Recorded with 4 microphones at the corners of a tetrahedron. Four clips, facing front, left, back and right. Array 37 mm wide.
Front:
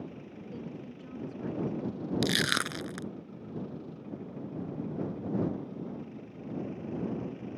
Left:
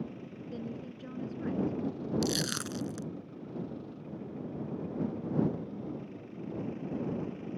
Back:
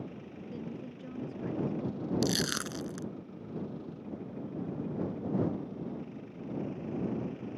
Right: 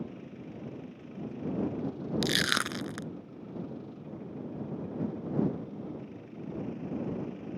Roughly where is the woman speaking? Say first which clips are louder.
Left 5 dB, back 1 dB; left.